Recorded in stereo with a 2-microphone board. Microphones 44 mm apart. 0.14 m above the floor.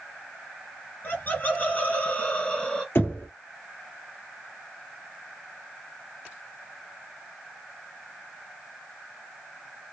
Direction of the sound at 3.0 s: 55° left (ahead or behind).